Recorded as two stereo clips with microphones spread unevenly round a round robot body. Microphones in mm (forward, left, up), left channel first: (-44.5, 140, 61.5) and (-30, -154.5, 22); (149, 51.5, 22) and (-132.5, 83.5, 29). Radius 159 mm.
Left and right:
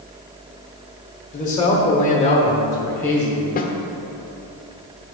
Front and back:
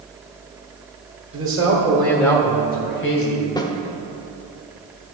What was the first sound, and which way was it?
A man speaking, 155° left.